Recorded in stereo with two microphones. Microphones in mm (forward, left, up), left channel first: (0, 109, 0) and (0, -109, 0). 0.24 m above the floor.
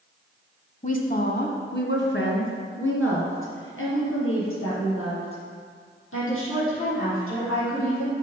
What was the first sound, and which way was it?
A woman speaking, 35° left (ahead or behind).